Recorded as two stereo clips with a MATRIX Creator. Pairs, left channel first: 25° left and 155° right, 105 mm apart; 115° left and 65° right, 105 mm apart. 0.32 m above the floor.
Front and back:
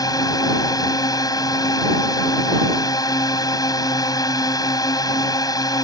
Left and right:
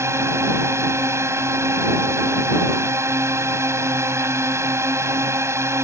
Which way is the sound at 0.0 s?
15° right.